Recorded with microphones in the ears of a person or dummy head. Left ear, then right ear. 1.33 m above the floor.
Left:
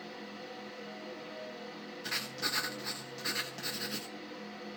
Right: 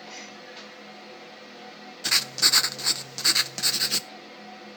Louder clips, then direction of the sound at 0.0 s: Right 4 dB; 20° right (ahead or behind).